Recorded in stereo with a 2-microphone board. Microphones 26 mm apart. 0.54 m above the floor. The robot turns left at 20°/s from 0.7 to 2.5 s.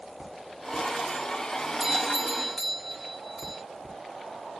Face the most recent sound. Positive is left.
turn(degrees=-5)  # may be behind; listen again after turning